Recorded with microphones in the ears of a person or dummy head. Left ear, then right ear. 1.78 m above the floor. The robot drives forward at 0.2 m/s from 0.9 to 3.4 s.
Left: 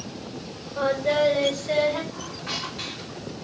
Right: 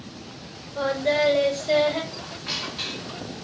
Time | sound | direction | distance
0.8 | singing | 10° right (ahead or behind) | 3 m
2.1 | a squeak | 5° right (ahead or behind) | 1.4 m